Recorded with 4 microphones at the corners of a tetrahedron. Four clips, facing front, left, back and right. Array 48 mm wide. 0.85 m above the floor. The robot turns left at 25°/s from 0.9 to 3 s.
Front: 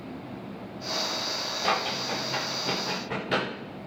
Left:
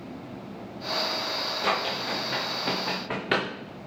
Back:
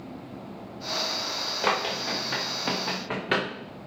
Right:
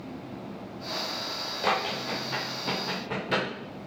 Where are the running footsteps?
175° right, 4 m; by 3.5 s 130° left, 3.5 m.